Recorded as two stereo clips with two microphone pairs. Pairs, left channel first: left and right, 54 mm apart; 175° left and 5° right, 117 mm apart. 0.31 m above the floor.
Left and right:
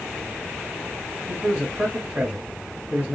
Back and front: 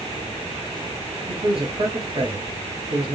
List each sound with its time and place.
1.3 s a man speaking: 35° right, 1.9 m